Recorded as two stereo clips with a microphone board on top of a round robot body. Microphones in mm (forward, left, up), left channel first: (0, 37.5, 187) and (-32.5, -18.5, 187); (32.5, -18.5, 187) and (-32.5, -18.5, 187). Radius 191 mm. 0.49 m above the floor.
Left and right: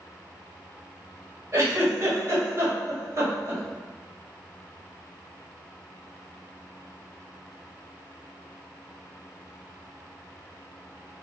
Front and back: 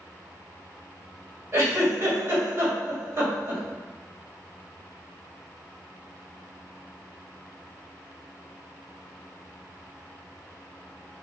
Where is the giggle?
145° right, 1.8 m.